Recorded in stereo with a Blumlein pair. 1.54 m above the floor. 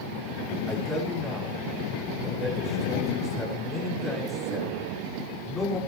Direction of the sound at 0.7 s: 10° left.